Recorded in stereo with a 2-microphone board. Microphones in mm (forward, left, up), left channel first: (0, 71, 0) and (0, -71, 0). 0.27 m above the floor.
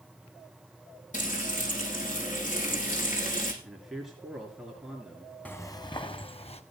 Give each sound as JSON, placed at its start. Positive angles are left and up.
{"t": 1.1, "sound": "frying", "side_deg": 65, "distance_m": 7.5}
{"t": 3.6, "sound": "a man speaking", "side_deg": -5, "distance_m": 4.0}
{"t": 5.5, "sound": "footsteps", "side_deg": 10, "distance_m": 0.8}